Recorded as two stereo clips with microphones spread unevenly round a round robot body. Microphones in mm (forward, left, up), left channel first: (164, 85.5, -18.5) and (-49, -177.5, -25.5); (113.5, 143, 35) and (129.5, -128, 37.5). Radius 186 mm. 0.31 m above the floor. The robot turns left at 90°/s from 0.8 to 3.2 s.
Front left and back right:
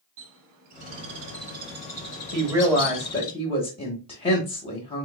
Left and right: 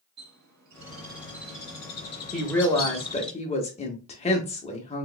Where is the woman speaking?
175° right, 0.9 m; by 5.0 s 105° left, 0.9 m.